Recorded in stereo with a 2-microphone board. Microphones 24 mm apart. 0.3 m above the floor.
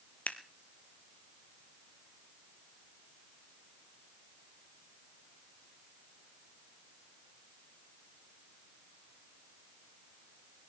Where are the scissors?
85° left, 1.1 m.